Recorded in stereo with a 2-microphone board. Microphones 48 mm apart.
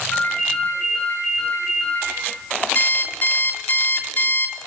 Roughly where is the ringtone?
Left.